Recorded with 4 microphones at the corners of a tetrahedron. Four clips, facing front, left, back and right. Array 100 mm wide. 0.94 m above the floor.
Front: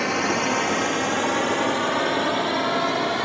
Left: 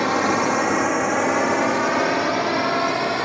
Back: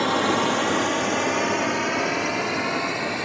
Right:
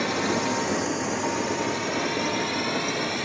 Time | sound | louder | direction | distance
0.0 | a drone | left 6 dB, back 2 dB | 110° left | ?